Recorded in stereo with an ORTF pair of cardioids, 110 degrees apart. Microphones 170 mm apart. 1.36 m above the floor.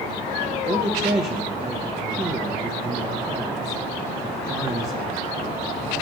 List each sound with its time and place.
0.7 s a man speaking: 20° right, 1.2 m